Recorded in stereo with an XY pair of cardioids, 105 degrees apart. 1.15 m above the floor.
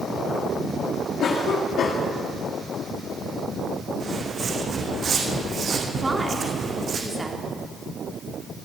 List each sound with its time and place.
1.2 s a cough: 60° left, 1.9 m
4.0 s footsteps: 50° right, 3.5 m
6.0 s a woman speaking: 20° right, 3.5 m